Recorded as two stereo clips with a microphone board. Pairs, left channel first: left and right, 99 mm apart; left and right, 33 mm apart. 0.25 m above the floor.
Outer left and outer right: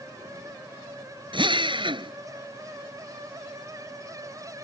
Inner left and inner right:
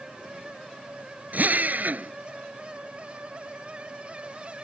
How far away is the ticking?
I don't hear ticking.